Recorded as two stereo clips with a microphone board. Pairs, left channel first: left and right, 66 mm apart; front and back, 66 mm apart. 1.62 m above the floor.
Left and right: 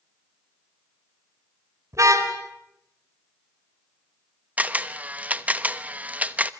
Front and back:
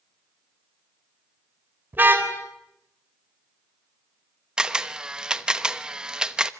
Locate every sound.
1.9 s a car horn: 125° right, 3.5 m
4.6 s a camera shutter: 120° right, 1.0 m